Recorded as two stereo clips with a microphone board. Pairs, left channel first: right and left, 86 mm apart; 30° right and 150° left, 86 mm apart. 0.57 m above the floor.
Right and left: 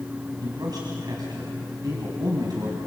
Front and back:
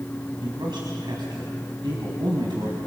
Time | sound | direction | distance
0.4 | a man speaking | 125° left | 4 m